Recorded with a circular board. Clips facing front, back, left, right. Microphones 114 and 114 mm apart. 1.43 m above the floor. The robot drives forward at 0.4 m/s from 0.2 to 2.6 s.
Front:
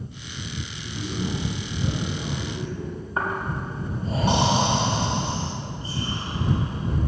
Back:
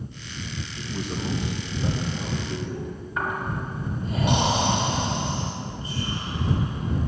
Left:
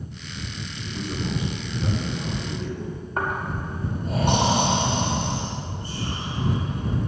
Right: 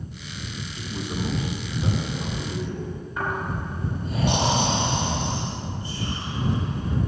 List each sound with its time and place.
0.8 s a man speaking: 145° right, 2 m; by 3.0 s 155° right, 2.5 m
3.2 s snoring: 55° left, 2.5 m